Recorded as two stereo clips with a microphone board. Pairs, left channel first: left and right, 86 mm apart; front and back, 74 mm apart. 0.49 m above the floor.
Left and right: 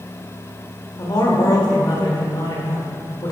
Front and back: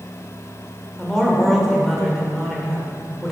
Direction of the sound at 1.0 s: 85° left.